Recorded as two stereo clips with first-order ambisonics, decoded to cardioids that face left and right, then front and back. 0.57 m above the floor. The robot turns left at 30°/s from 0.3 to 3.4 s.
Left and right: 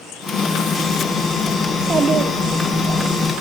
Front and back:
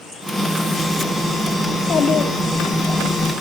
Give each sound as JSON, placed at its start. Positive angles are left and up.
{"t": 1.7, "sound": "a child speaking", "azimuth_deg": -30, "distance_m": 0.8}